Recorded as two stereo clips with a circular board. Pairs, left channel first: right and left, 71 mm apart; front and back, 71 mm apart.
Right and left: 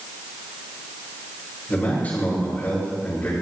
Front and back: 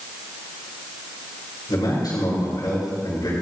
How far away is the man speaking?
About 4.5 m.